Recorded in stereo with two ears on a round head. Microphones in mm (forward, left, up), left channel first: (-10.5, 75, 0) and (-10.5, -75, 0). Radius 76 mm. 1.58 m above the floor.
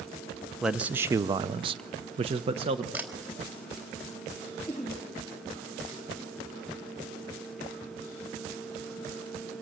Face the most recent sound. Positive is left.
turn(degrees=10)  # may be behind; listen again after turning